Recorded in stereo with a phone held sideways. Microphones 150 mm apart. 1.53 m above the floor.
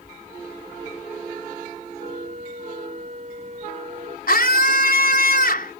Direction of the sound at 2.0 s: 50° right (ahead or behind).